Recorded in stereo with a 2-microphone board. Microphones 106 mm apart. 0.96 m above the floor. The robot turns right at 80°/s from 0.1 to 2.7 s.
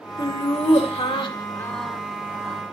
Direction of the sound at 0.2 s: 45° left.